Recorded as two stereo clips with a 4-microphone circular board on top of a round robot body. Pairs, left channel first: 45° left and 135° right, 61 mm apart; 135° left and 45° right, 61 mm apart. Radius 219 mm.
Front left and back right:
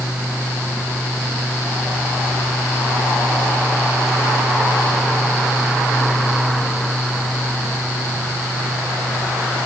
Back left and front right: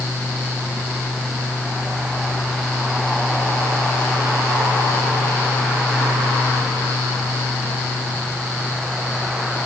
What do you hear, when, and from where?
Only background noise.